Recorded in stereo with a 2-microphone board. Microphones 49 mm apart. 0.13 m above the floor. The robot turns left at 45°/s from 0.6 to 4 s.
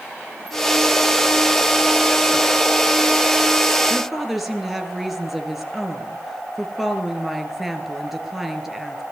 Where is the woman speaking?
Centre (ahead or behind), 2.5 m; by 9.0 s 5° right (ahead or behind), 2.5 m.